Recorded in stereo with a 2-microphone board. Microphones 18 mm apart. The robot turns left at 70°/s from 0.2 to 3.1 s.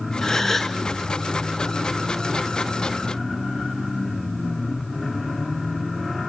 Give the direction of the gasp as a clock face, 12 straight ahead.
11 o'clock.